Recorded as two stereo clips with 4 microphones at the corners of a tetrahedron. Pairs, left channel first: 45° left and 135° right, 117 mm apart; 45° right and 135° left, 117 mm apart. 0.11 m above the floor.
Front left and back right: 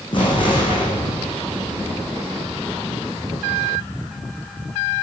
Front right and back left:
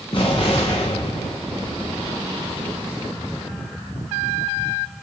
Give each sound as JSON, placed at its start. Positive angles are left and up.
{"t": 0.1, "sound": "an explosion", "azimuth_deg": 0, "distance_m": 6.5}